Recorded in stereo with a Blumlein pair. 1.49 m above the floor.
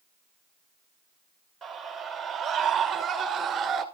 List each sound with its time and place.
1.6 s a scream: 10° right, 6 m; by 3.9 s 25° right, 5.5 m